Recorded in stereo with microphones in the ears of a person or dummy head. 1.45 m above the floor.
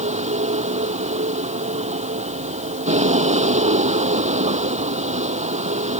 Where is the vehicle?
35° right (ahead or behind).